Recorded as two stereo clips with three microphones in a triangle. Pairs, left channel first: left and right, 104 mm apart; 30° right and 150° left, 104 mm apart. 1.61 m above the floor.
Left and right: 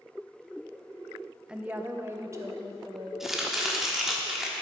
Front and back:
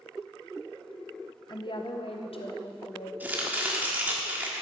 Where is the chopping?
170° right, 1.2 m.